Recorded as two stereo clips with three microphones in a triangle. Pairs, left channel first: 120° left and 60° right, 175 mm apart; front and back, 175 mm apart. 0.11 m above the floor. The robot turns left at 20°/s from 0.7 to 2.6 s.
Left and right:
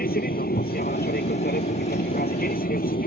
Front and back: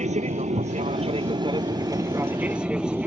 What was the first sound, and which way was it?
An aircraft, 140° left.